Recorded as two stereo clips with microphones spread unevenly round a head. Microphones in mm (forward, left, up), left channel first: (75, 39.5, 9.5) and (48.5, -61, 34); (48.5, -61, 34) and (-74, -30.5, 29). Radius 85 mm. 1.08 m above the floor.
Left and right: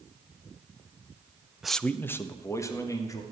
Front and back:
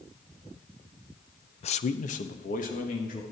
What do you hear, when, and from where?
1.6 s a man speaking: 5° right, 0.5 m; by 3.2 s 20° left, 2.5 m